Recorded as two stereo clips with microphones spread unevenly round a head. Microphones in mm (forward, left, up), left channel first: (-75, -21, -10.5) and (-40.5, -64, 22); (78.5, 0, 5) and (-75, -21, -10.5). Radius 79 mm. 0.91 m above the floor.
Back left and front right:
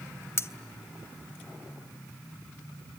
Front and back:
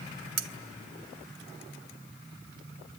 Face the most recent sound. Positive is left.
turn(degrees=175)